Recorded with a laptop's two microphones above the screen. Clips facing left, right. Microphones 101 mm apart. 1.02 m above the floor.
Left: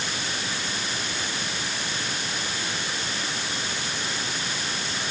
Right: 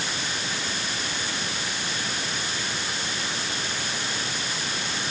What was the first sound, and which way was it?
Only background noise.